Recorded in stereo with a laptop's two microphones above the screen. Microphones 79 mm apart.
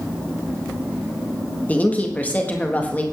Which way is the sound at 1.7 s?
20° left (ahead or behind).